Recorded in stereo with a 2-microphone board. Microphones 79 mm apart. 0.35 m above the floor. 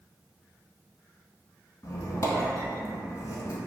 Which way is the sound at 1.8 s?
45° left (ahead or behind).